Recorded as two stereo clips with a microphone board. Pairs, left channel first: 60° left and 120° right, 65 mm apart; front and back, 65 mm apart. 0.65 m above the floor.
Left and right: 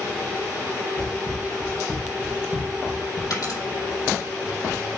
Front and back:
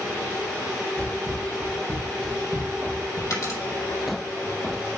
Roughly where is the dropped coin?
Ahead left.